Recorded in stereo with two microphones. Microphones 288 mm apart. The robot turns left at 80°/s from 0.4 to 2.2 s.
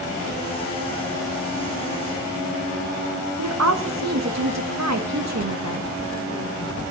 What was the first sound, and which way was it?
A woman speaking, 65° right (ahead or behind).